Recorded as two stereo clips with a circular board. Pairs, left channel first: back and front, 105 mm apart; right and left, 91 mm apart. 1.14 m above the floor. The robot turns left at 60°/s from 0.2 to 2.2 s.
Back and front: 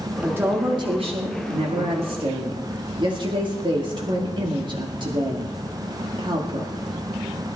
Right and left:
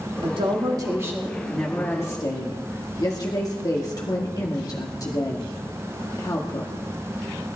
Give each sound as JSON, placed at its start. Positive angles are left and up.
{"t": 0.2, "sound": "a woman speaking", "azimuth_deg": 75, "distance_m": 1.8}